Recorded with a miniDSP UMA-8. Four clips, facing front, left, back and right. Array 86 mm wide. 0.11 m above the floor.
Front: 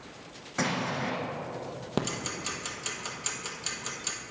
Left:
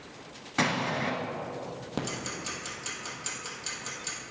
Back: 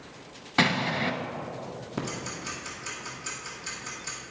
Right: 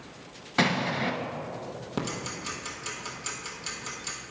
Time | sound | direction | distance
0.6 | an explosion | 160° right | 0.9 m
2.0 | ticking | straight ahead | 1.1 m